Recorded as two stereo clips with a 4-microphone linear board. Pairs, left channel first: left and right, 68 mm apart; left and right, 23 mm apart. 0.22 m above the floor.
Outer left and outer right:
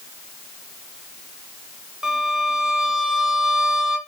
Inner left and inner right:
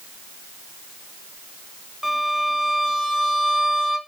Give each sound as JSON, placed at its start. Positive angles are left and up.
{"t": 2.0, "sound": "a violin", "side_deg": -5, "distance_m": 1.6}